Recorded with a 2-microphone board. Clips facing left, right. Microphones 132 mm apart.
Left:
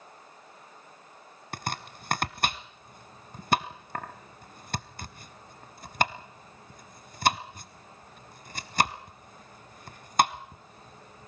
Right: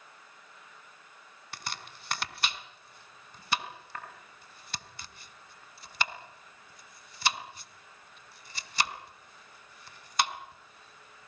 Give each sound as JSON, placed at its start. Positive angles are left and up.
{"t": 1.5, "sound": "chopping", "side_deg": 50, "distance_m": 1.1}